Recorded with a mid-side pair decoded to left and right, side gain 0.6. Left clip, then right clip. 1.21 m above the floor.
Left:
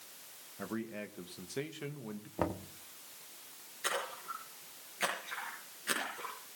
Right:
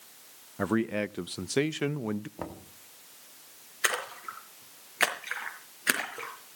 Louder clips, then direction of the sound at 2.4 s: Left 4 dB; 25° left.